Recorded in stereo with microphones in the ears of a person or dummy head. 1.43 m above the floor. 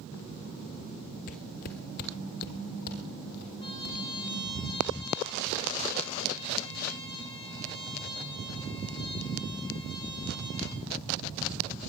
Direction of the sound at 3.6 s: 30° left (ahead or behind).